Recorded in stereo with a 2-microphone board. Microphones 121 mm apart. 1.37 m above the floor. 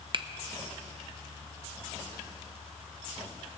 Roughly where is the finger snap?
Right.